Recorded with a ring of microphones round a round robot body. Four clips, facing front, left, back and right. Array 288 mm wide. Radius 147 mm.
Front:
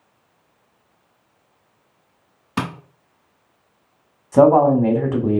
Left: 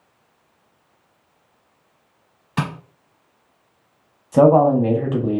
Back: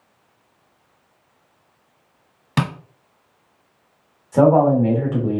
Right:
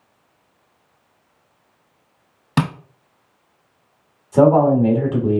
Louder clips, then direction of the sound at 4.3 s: Even, front 2 dB; 25° left.